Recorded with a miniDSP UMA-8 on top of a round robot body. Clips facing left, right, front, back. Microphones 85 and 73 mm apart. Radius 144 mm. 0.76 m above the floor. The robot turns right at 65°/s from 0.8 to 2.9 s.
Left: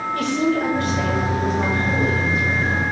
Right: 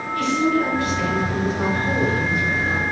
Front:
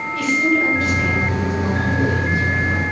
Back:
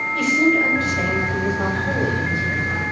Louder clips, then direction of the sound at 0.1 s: Right 2 dB, even; 130° left.